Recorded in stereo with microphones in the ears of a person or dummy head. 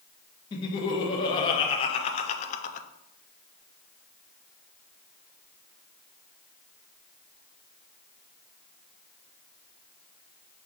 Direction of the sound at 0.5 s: 25° left (ahead or behind).